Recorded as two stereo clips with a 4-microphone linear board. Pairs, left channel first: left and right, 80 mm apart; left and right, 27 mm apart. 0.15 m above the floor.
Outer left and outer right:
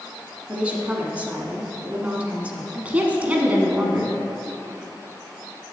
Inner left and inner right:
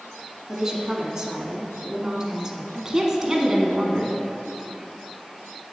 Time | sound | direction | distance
0.5 | a woman speaking | 20° right (ahead or behind) | 1.2 m
2.7 | a woman speaking | 20° right (ahead or behind) | 1.3 m